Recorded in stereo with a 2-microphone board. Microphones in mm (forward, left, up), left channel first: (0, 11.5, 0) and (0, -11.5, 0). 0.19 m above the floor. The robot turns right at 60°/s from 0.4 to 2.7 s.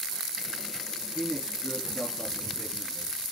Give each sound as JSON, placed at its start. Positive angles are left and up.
{"t": 1.0, "sound": "a man speaking", "azimuth_deg": 15, "distance_m": 3.5}